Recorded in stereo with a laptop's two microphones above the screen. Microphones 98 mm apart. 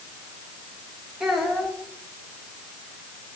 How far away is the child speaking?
About 4 m.